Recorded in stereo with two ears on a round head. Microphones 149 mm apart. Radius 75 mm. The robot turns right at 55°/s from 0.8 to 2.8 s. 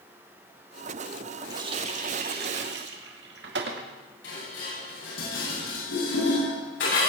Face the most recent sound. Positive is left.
turn(degrees=85)